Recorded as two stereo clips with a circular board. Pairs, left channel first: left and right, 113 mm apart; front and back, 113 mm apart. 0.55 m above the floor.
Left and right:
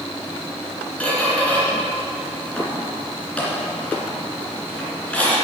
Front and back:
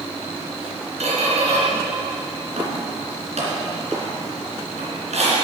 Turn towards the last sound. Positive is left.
turn(degrees=170)